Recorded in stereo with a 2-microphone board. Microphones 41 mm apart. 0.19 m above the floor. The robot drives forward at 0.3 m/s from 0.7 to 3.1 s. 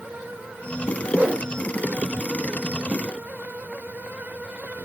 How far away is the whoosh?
About 0.6 m.